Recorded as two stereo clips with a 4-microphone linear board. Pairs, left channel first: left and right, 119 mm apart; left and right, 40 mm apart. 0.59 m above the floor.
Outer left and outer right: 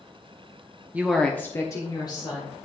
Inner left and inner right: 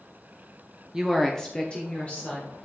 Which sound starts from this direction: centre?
A woman speaking, at 0.9 s.